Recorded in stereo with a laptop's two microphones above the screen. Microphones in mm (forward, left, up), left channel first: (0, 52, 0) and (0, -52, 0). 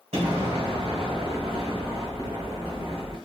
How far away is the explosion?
About 1.6 m.